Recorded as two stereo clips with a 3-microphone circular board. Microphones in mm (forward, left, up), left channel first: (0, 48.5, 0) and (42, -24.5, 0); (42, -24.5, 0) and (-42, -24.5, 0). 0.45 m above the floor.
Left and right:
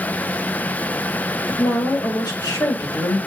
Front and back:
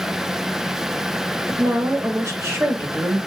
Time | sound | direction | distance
1.5 | a woman speaking | 135° left | 1.9 m